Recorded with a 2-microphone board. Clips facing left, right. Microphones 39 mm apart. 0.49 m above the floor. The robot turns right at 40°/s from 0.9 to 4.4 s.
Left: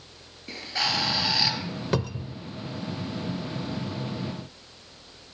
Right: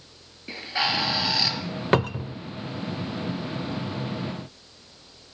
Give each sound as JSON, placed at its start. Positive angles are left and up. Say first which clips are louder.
{"t": 0.5, "sound": "a bird", "louder": "right 2 dB", "azimuth_deg": -15, "distance_m": 3.0}
{"t": 1.9, "sound": "a cupboard door", "louder": "right 7 dB", "side_deg": -45, "distance_m": 0.6}